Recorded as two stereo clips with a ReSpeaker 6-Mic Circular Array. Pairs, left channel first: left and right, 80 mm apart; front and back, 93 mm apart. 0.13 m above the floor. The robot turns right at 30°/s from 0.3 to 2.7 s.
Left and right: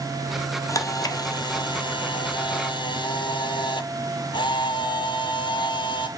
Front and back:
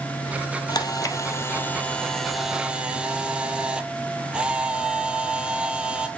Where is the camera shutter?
40° left, 0.7 m; by 6.1 s 100° left, 0.7 m.